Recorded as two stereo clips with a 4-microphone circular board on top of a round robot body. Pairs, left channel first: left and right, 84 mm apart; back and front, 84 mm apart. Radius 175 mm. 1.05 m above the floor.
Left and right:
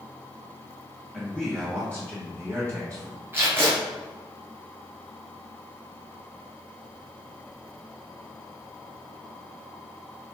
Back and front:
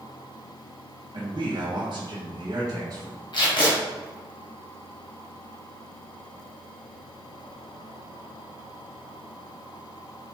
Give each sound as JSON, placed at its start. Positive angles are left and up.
{"t": 1.1, "sound": "a man speaking", "azimuth_deg": -15, "distance_m": 2.0}
{"t": 3.3, "sound": "tape being pulled", "azimuth_deg": -155, "distance_m": 2.5}